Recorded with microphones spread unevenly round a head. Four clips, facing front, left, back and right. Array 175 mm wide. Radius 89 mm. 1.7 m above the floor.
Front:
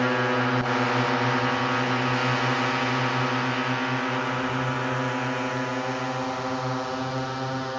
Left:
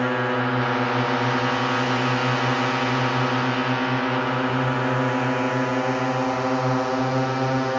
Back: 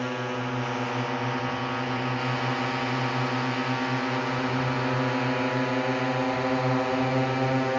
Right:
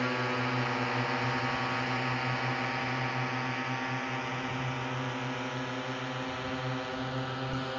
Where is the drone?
50° left; by 7.8 s 115° left.